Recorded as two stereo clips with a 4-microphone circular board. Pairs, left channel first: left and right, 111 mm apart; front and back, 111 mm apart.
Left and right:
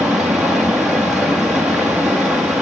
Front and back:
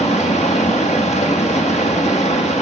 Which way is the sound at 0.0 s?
Straight ahead.